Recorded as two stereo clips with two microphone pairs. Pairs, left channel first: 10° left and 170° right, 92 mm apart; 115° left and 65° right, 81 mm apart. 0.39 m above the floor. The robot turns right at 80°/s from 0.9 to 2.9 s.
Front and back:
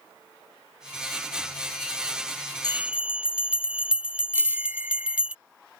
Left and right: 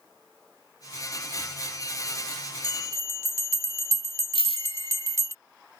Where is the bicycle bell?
125° left.